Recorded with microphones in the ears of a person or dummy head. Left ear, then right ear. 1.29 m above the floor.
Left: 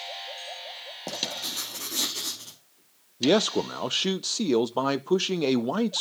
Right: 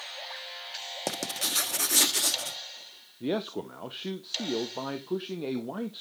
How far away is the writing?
About 0.9 m.